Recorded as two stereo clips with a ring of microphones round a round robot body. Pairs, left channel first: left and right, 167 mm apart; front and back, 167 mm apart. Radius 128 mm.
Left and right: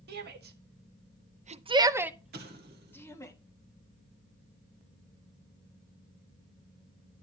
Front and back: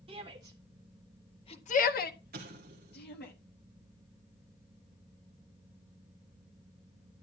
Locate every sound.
0.1 s a shout: 115° right, 1.7 m; by 3.3 s 20° left, 2 m
2.3 s an explosion: 135° right, 1.6 m